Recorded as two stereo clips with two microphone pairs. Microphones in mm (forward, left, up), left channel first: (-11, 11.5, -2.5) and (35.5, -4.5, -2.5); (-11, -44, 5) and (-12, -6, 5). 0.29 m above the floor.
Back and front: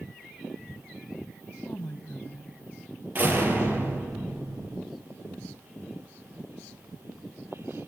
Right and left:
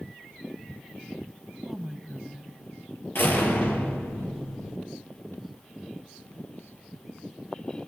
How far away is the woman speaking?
About 2 m.